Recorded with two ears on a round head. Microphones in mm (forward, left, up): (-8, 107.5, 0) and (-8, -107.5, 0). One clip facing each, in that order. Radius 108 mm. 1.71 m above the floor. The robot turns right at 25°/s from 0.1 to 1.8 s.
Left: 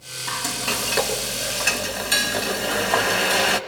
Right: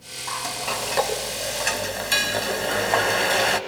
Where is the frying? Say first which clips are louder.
Left 2 dB; 140° left, 2 m; by 3.6 s 175° left, 2 m.